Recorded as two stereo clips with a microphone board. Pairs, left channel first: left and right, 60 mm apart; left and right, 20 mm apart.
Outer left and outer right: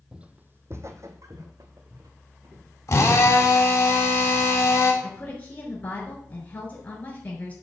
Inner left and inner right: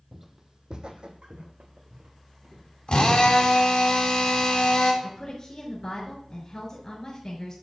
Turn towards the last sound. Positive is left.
turn(degrees=30)  # may be behind; listen again after turning